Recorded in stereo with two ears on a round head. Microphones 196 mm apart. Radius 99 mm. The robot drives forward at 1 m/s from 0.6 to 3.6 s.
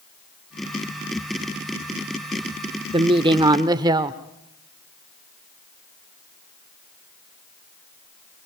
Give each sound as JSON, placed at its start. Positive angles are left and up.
{"t": 2.9, "sound": "a woman speaking", "side_deg": -25, "distance_m": 0.8}